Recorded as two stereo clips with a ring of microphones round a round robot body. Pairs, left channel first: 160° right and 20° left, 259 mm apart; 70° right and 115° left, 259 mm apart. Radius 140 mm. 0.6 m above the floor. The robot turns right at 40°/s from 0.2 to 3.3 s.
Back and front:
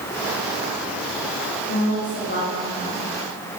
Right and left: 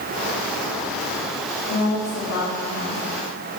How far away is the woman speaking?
About 2.5 m.